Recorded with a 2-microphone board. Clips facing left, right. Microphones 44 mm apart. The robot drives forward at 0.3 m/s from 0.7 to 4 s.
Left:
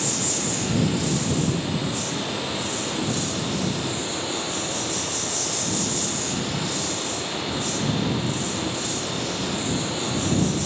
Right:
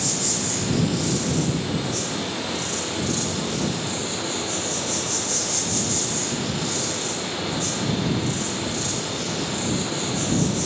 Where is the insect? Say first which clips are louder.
Even; 25° left (ahead or behind), 2 m; by 10.7 s 15° left (ahead or behind), 3 m.